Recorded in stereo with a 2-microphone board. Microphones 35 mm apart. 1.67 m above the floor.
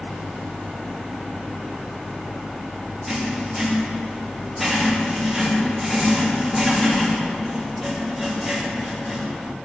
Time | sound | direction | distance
3.1 | writing | centre (ahead or behind) | 2.5 m